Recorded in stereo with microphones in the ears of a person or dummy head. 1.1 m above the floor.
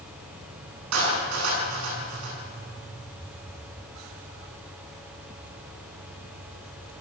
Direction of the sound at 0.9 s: 80° right.